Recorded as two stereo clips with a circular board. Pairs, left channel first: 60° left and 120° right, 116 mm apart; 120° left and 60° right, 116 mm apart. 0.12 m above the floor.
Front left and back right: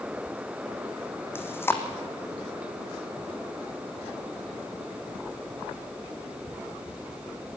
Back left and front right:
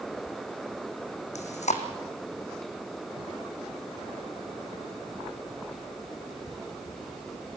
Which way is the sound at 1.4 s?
130° left.